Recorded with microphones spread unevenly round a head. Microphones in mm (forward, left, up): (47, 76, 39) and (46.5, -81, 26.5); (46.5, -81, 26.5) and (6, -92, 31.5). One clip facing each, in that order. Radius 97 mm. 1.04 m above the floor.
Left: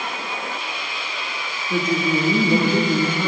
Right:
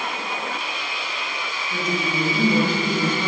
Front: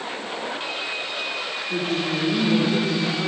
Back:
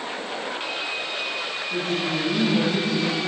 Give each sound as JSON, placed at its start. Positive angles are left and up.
{"t": 1.7, "sound": "a woman speaking", "azimuth_deg": 85, "distance_m": 3.0}